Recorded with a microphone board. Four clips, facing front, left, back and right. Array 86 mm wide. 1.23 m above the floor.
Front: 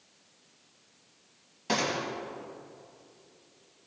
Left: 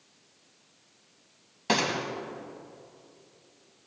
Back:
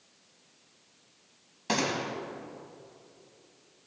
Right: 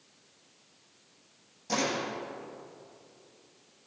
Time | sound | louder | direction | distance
1.7 | a gunshot | left 3 dB, even | 100° left | 1.8 m